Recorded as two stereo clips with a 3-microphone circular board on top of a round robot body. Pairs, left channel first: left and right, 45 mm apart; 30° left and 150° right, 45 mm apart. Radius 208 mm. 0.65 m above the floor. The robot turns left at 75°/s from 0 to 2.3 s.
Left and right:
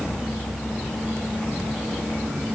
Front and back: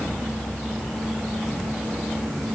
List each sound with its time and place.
Only background noise.